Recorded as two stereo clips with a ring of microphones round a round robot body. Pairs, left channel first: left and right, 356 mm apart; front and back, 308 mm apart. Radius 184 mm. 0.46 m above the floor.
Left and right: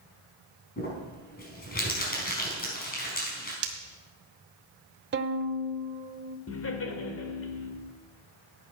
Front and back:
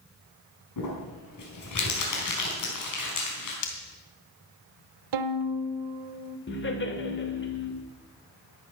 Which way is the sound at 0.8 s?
25° left.